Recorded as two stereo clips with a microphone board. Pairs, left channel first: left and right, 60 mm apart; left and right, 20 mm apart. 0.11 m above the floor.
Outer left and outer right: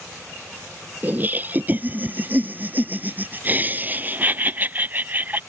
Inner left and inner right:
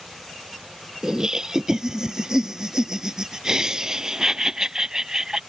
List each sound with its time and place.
1.0 s laughter: 30° right (ahead or behind)